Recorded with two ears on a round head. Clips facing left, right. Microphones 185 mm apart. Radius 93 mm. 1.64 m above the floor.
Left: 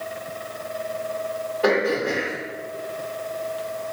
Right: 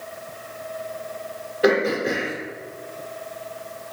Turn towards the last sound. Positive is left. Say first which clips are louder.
# right 2 dB
turn(degrees=-20)  # may be behind; listen again after turning